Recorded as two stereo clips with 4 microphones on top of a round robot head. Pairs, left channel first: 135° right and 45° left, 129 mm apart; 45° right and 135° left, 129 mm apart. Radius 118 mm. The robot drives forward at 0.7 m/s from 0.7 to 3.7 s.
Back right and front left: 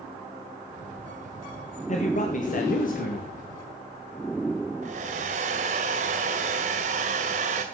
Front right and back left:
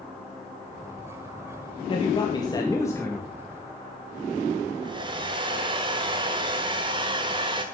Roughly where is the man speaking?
Right.